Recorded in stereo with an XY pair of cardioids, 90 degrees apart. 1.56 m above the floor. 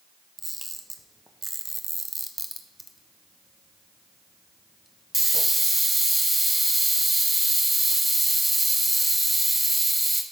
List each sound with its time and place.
0.4 s a camera shutter: 10° right, 1.3 m